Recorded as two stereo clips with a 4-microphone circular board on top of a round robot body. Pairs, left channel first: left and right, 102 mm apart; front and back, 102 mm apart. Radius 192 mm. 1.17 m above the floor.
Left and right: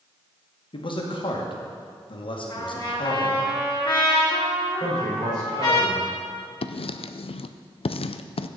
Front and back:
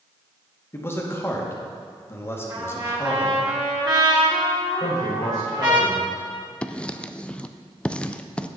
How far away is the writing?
About 0.5 m.